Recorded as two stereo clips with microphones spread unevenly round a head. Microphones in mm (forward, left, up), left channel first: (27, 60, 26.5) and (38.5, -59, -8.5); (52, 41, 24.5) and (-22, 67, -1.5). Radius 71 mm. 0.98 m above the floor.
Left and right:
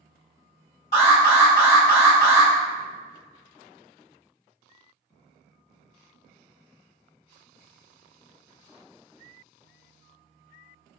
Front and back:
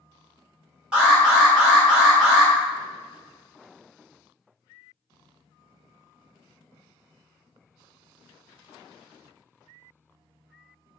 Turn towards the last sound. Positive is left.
turn(degrees=110)